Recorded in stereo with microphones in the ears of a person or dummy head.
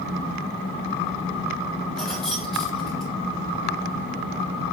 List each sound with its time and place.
2.0 s keys jangling: 5° left (ahead or behind), 3 m